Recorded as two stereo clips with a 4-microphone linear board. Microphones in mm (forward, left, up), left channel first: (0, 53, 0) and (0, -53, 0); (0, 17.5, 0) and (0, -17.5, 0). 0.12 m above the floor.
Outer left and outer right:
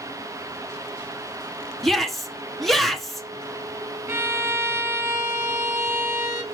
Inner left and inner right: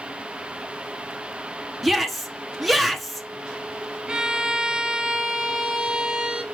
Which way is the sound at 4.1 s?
20° right (ahead or behind).